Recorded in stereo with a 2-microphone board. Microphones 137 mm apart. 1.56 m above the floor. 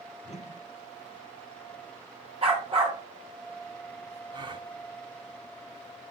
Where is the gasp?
35° right (ahead or behind), 1.7 m.